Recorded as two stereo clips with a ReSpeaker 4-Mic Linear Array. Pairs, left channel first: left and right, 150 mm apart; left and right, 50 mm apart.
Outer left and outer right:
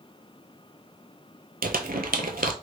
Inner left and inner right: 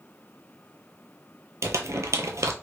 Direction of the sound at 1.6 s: 85° right.